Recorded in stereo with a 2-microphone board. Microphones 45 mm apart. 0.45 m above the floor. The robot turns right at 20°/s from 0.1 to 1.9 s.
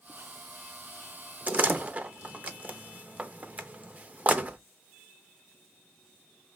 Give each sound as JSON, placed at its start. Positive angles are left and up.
{"t": 1.5, "sound": "a door slam", "side_deg": -40, "distance_m": 0.5}